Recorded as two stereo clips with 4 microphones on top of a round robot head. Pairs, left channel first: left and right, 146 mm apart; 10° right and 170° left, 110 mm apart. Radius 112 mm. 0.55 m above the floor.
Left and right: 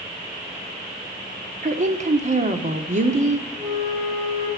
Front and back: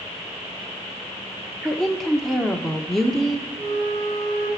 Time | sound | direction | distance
1.6 | a woman speaking | 95° right | 1.5 m
3.6 | a flute | 165° right | 9.5 m